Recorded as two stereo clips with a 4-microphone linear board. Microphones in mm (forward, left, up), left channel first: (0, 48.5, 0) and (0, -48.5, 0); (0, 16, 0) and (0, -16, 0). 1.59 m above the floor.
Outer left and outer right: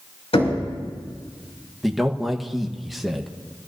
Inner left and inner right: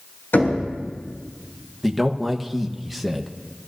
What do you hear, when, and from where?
0.3 s knocking: 80° left, 6 m
1.8 s a man speaking: centre (ahead or behind), 1.2 m